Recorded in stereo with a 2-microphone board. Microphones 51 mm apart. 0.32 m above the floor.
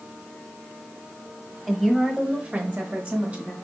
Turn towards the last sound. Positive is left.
turn(degrees=-35)  # may be behind; listen again after turning